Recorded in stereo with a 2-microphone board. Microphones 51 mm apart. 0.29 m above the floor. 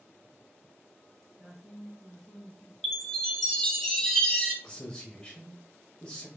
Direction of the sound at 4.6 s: 15° left (ahead or behind).